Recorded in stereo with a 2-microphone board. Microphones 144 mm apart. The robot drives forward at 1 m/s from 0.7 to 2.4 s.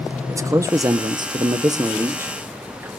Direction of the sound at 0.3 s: 20° right (ahead or behind).